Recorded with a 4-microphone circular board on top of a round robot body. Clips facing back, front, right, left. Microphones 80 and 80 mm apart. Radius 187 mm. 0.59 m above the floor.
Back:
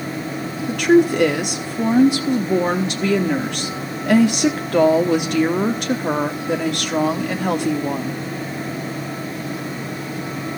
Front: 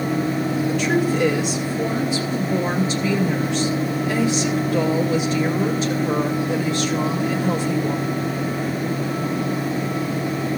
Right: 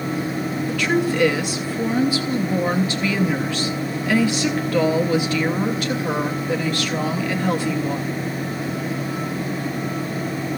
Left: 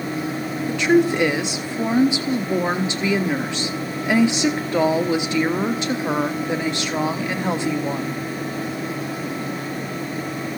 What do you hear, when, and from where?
0.7 s a woman speaking: 160° left, 1.3 m